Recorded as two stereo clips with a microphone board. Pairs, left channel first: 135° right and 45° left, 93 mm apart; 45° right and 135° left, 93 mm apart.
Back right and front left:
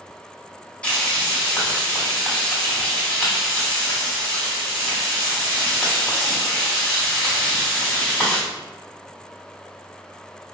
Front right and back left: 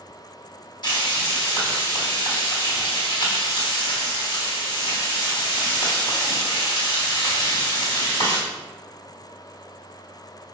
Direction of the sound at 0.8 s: 65° right.